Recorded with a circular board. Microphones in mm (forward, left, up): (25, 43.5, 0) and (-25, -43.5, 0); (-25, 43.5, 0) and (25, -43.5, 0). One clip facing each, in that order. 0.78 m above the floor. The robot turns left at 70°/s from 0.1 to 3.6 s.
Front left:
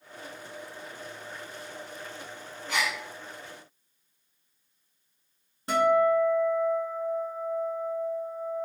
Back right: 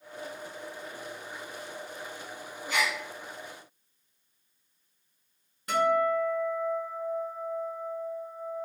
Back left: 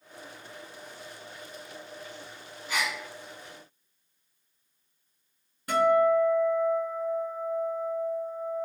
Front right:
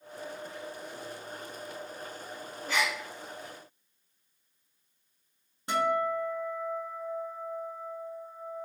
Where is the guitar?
Straight ahead, 1.7 m.